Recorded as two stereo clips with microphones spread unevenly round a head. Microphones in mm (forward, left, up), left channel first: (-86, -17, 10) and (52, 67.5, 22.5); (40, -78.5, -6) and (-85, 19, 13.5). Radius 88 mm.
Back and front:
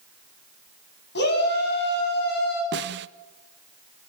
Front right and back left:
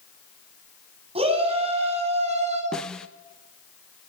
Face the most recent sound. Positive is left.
turn(degrees=50)